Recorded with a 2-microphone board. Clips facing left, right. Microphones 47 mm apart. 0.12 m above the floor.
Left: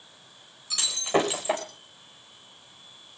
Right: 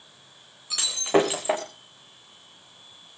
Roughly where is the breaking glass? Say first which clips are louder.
Right 3 dB; right.